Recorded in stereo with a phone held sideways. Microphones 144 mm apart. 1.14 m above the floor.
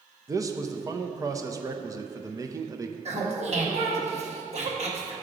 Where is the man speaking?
25° right (ahead or behind), 0.5 m.